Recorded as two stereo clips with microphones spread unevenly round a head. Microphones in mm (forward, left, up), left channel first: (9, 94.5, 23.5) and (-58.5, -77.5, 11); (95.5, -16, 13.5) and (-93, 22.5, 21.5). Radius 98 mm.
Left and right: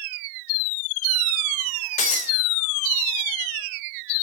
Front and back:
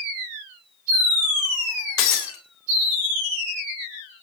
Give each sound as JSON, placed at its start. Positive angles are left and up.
{"t": 2.0, "sound": "breaking glass", "azimuth_deg": 15, "distance_m": 3.5}